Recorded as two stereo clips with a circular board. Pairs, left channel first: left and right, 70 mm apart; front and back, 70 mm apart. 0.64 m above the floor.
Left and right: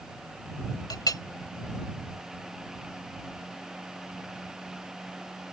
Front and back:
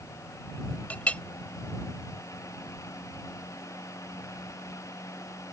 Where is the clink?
70° left.